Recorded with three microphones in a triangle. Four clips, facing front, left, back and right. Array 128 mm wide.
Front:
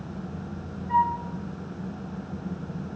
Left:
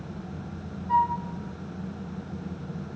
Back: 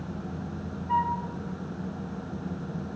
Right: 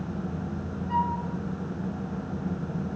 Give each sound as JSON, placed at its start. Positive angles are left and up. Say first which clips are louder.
{"t": 0.9, "sound": "a flute", "louder": "left 4 dB, front 3 dB", "azimuth_deg": 135, "distance_m": 0.9}